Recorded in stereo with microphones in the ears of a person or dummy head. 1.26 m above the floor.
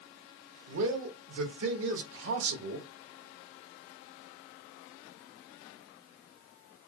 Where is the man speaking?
85° right, 1.3 m.